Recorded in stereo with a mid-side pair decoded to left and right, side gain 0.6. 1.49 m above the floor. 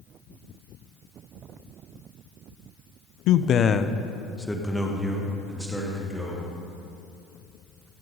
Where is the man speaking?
70° left, 0.6 m; by 6.5 s 10° right, 3 m.